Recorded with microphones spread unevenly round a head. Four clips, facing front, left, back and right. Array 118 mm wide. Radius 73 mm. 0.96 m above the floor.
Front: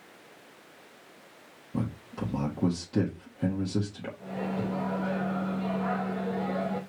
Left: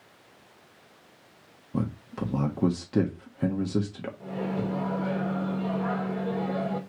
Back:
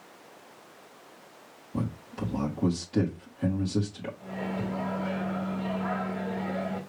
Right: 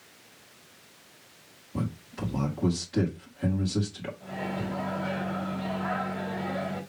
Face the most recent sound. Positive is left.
turn(degrees=95)